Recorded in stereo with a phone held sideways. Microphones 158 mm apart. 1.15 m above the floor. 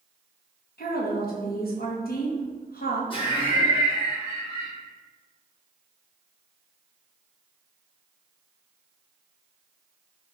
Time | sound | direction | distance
0.8 | a woman speaking | 75° left (ahead or behind) | 1.0 m
3.1 | laughter | 35° left (ahead or behind) | 1.4 m